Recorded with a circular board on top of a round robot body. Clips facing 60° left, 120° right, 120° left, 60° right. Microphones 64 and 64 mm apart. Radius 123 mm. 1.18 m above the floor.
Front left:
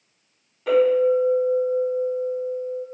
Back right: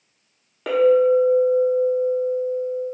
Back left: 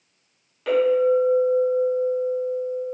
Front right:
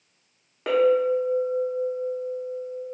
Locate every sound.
0.7 s a clink: 120° right, 1.0 m